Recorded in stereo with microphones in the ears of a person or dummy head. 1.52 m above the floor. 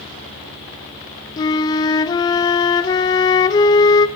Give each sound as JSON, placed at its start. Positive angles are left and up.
{"t": 1.4, "sound": "a flute", "side_deg": 20, "distance_m": 0.6}